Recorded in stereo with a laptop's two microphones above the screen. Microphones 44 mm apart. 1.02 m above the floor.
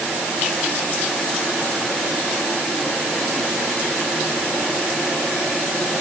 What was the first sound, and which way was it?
Only background noise.